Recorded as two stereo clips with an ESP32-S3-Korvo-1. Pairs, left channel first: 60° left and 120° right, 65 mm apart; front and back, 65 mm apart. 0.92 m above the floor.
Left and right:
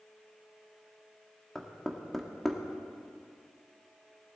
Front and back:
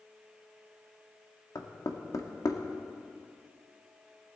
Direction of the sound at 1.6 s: 25° right.